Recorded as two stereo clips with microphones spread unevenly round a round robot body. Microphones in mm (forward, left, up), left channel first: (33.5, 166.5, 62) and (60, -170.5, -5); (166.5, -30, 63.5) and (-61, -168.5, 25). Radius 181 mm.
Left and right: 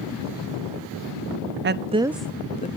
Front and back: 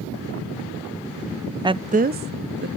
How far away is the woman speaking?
About 0.7 m.